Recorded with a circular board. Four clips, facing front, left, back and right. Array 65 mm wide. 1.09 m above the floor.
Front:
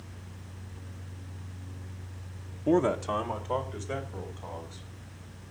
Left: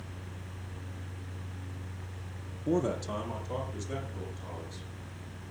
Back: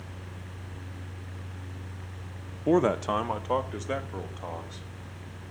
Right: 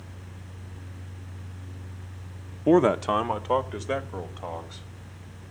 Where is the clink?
I don't hear a clink.